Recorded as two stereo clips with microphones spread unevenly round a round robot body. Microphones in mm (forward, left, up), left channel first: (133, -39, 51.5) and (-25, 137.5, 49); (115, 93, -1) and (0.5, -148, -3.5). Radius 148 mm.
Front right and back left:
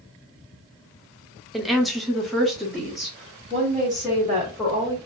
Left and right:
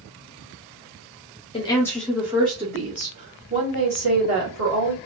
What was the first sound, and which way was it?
A woman speaking, 45° left.